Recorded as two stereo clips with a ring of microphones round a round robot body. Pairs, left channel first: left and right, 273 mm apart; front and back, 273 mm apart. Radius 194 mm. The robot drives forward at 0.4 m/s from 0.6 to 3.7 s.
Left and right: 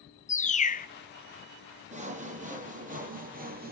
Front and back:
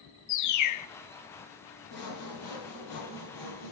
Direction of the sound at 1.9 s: 25° right.